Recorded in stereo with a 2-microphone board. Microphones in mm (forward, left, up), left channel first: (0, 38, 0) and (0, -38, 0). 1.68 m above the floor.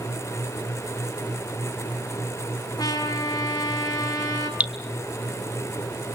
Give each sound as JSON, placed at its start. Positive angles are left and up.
{"t": 2.8, "sound": "a trumpet", "side_deg": 60, "distance_m": 5.5}
{"t": 4.6, "sound": "dripping", "side_deg": -20, "distance_m": 2.0}